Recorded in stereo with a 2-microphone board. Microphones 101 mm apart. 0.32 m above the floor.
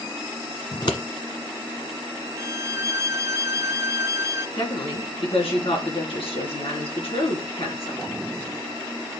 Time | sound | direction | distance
0.7 | scissors | 50° left (ahead or behind) | 1.3 m
2.4 | a violin | 30° right (ahead or behind) | 1.3 m
4.6 | a woman speaking | 70° left (ahead or behind) | 3.5 m